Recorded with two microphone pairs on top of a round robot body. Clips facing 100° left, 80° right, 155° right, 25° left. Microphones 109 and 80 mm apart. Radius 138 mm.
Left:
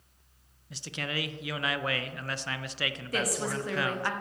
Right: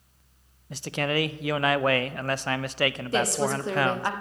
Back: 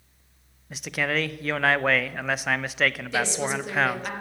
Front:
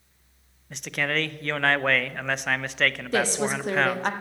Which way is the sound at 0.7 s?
70° right.